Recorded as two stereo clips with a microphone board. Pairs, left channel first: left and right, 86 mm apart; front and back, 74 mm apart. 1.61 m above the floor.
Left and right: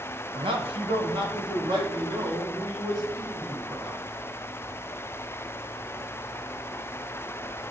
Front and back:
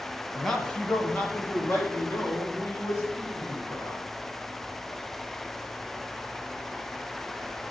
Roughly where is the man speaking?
Right.